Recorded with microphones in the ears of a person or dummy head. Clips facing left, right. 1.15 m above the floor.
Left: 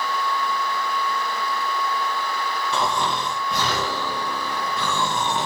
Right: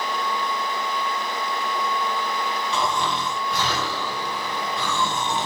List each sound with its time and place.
2.7 s snoring: 45° left (ahead or behind), 0.6 m